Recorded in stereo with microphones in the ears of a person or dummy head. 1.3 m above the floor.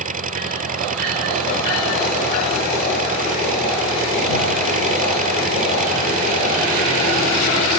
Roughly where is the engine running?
Right.